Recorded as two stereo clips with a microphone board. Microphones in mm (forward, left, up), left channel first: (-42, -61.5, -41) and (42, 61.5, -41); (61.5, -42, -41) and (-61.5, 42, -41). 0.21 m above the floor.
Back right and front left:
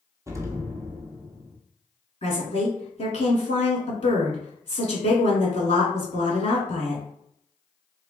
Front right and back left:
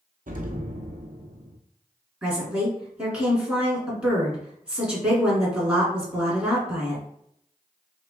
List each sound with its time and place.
0.3 s an explosion: 125° left, 0.8 m
2.2 s a woman speaking: 135° right, 1.6 m